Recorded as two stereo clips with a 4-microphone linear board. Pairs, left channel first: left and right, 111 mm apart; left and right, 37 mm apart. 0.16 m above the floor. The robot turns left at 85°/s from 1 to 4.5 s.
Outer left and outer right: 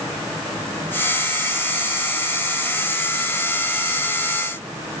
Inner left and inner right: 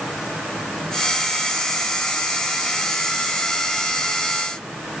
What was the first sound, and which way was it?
Only background noise.